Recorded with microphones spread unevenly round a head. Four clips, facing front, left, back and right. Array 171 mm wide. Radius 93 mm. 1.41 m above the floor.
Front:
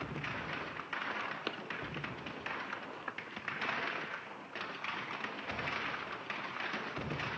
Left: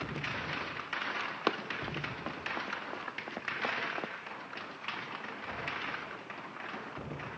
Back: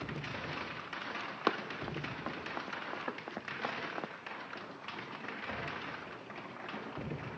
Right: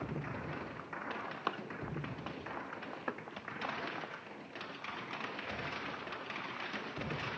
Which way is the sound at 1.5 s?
145° left.